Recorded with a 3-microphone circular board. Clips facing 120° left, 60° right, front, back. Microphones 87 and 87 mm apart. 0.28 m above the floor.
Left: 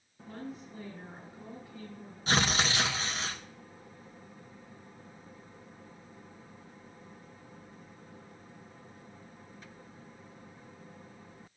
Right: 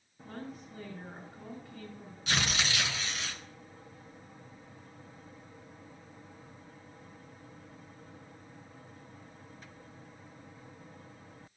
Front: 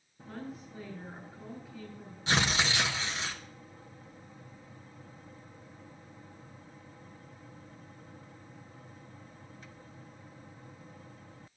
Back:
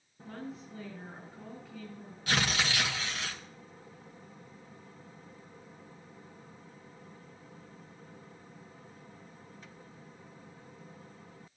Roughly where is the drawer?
No drawer in this recording.